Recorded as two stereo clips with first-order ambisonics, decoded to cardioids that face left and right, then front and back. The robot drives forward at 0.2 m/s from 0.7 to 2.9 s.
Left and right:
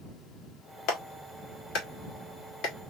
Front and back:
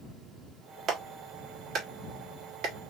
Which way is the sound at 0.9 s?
120° left.